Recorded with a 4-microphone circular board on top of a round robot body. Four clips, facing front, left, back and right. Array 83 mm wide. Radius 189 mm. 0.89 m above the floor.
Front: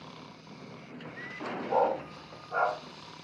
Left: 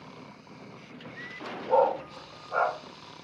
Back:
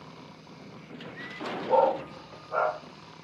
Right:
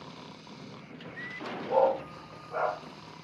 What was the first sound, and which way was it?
A dog barking, 130° left.